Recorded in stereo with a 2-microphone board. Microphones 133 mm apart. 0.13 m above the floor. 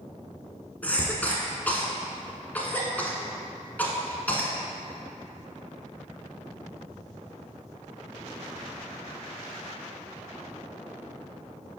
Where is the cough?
10° left (ahead or behind), 1.1 m.